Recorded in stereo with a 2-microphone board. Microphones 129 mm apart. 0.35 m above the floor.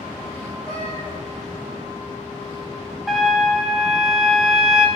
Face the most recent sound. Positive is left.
turn(degrees=0)  # may be behind; listen again after turning